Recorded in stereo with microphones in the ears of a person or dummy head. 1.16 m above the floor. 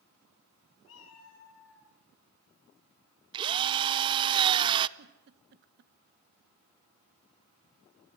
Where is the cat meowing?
85° left, 6.5 m.